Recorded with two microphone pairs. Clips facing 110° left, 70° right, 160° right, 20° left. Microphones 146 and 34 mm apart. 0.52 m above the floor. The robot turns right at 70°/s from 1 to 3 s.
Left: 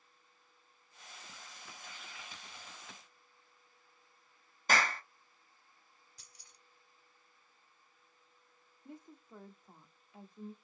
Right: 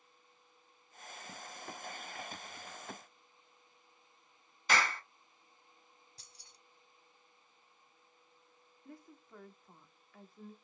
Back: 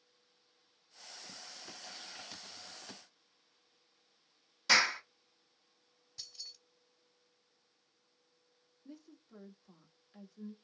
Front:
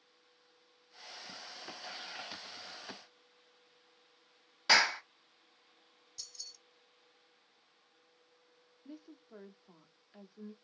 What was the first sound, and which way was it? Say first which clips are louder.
A clap: left 1 dB, front 1 dB; 75° left.